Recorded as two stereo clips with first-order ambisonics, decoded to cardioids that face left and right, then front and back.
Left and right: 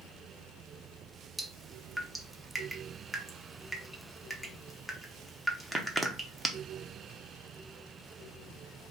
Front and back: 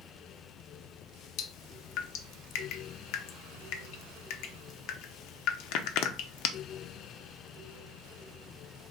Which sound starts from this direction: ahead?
Dripping, at 1.4 s.